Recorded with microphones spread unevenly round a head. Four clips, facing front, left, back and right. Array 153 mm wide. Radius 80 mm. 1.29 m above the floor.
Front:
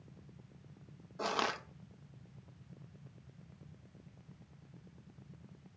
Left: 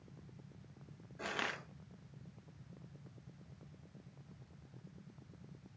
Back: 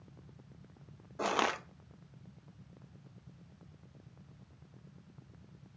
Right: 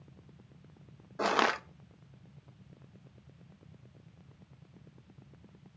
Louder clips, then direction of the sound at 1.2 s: Right 13 dB, back 3 dB; 100° right.